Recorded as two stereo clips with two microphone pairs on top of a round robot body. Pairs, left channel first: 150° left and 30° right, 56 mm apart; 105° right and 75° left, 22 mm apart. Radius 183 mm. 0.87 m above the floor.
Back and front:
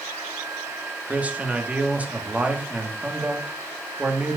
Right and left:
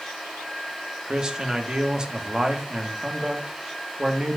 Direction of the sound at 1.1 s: 35° left.